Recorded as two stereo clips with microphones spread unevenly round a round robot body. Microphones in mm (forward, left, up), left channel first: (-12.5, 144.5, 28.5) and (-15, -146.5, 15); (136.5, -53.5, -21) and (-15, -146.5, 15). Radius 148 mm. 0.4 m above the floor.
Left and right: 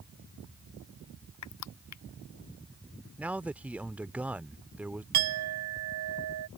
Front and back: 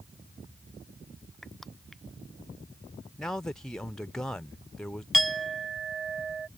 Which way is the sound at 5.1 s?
60° right.